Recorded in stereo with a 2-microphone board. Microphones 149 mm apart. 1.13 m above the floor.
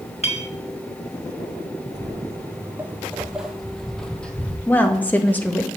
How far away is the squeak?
No squeak in this recording.